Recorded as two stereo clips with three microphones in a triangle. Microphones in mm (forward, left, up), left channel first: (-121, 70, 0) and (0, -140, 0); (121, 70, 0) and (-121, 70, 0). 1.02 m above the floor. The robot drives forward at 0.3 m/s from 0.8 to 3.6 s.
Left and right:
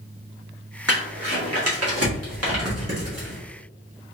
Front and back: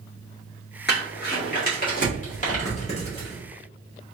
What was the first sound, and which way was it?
Crumpling, 45° right.